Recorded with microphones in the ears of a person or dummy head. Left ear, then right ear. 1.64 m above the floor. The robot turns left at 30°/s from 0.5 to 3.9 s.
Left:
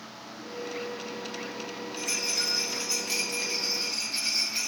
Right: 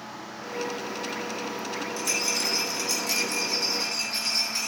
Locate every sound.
2.0 s a rattle: 95° right, 1.2 m; by 4.7 s 150° right, 1.2 m